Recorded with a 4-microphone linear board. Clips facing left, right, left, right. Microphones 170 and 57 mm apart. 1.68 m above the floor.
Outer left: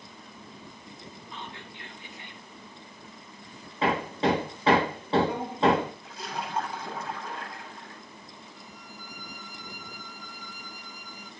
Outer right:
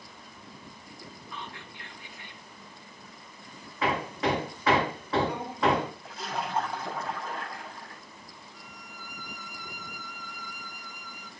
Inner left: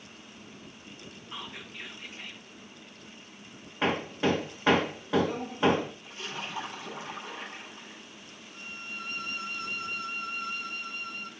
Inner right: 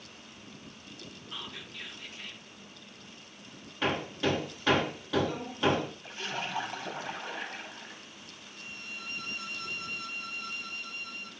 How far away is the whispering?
About 2.5 m.